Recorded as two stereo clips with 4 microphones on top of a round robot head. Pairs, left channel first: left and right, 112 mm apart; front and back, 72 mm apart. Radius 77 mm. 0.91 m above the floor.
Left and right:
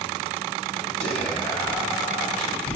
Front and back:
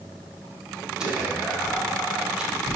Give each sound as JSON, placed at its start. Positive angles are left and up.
{"t": 1.0, "sound": "whispering", "azimuth_deg": 105, "distance_m": 3.5}